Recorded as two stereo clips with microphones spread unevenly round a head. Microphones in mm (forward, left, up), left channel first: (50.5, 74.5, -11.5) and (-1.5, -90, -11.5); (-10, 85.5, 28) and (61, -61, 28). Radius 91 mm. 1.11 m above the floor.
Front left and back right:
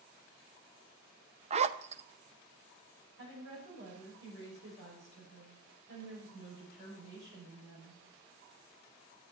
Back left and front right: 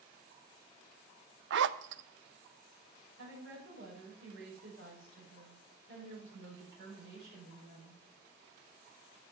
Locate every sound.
1.5 s a zipper: 55° right, 0.6 m
3.2 s a woman speaking: 90° right, 6 m